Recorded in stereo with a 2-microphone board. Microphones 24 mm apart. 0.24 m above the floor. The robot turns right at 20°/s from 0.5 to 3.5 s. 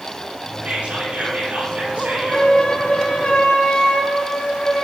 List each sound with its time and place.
0.7 s whispering: 130° right, 5 m; by 2.5 s 90° right, 5 m
2.3 s a flute: 70° left (ahead or behind), 4 m; by 4.8 s 50° left (ahead or behind), 4 m